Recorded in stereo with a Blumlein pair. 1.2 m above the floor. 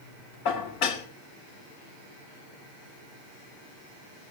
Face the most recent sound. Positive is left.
turn(degrees=45)